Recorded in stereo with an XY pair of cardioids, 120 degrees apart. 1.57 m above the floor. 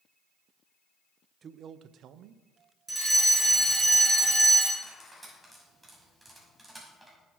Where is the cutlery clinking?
5° right, 5.5 m.